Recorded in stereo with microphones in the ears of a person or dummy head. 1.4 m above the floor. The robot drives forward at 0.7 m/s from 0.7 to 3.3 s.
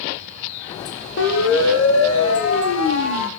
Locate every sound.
1.2 s a siren: 70° left (ahead or behind), 3.5 m; by 3.3 s 85° left, 5 m